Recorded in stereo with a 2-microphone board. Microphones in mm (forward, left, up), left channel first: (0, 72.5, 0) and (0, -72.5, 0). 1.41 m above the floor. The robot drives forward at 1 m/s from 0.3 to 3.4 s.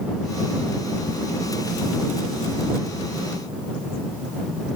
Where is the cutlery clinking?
No cutlery clinking in this recording.